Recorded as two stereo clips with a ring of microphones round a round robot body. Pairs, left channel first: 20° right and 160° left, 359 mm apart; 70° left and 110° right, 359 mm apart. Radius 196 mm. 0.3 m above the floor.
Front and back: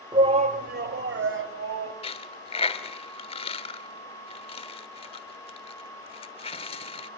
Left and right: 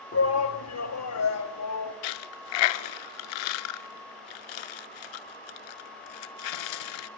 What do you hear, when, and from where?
0.1 s a shout: 85° left, 1.5 m; by 1.9 s 110° left, 3 m
2.0 s a dropped coin: 50° left, 0.8 m